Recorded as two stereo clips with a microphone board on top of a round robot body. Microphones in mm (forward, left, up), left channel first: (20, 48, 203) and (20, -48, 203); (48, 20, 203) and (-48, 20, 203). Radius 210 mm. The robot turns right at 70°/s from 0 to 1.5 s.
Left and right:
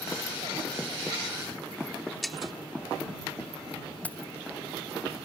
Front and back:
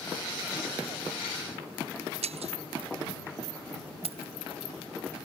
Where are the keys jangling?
165° left.